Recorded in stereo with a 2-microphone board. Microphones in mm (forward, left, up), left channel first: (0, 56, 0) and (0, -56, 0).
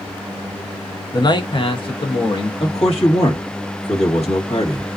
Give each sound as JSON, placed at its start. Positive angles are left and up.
{"t": 1.1, "sound": "a man speaking", "side_deg": 35, "distance_m": 0.7}
{"t": 2.6, "sound": "a man speaking", "side_deg": 65, "distance_m": 1.5}